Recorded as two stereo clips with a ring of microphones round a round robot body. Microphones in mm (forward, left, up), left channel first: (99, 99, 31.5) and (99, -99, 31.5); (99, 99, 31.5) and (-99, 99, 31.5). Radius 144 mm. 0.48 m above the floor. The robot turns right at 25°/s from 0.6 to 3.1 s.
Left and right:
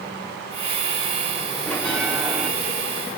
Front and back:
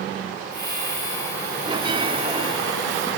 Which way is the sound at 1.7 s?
165° left.